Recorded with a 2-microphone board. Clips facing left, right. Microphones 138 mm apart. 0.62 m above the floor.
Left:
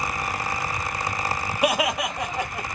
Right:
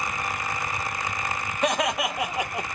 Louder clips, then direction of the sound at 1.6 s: Left 1 dB; 10° left (ahead or behind).